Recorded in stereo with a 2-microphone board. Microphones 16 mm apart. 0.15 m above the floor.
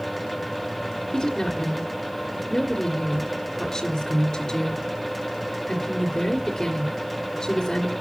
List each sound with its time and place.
1.1 s a woman speaking: 30° left (ahead or behind), 2 m